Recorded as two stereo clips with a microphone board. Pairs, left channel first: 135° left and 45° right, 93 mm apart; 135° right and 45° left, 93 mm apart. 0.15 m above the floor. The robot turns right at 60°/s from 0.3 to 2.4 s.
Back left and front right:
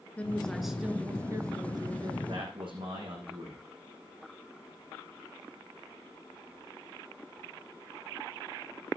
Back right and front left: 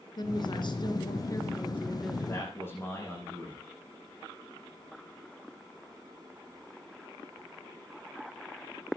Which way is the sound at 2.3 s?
80° right.